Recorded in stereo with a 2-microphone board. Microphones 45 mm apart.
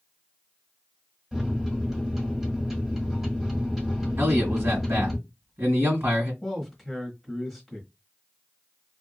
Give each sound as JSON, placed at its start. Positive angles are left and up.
{"t": 1.3, "sound": "a microwave", "side_deg": -10, "distance_m": 1.2}
{"t": 4.2, "sound": "a man speaking", "side_deg": -50, "distance_m": 1.8}
{"t": 6.4, "sound": "a man speaking", "side_deg": 0, "distance_m": 1.2}